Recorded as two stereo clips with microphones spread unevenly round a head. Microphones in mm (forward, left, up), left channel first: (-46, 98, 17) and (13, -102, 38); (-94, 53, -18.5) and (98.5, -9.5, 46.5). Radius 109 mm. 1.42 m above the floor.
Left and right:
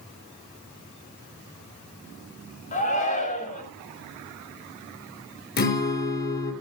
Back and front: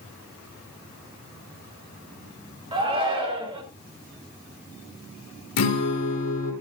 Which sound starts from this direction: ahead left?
A shout, at 2.7 s.